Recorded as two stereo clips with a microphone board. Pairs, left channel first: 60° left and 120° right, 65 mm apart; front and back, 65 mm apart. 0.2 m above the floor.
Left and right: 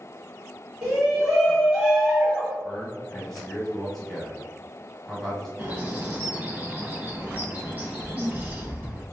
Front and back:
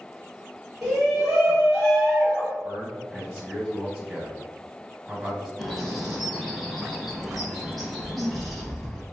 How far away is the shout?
About 1.1 m.